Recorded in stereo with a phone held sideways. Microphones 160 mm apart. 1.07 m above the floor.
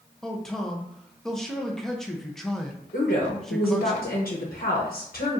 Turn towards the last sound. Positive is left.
turn(degrees=65)  # may be behind; listen again after turning